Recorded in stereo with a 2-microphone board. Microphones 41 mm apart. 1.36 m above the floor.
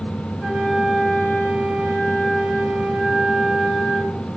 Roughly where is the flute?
Centre.